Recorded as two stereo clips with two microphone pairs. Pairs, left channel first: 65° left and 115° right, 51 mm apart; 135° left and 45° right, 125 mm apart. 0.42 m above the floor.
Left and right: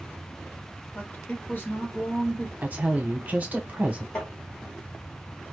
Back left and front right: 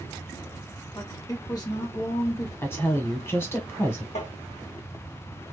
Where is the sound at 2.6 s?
160° right, 1.0 m.